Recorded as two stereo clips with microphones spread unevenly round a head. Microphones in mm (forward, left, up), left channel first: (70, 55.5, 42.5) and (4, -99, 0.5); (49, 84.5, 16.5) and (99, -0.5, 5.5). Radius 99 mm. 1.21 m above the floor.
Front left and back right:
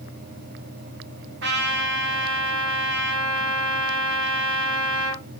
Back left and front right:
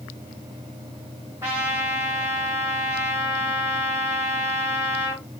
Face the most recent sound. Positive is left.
turn(degrees=-135)